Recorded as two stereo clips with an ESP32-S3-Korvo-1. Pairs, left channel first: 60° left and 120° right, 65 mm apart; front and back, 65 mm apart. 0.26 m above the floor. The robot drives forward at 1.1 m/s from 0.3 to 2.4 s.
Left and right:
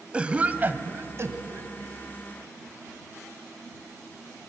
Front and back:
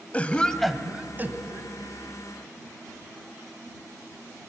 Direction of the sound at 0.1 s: 60° right.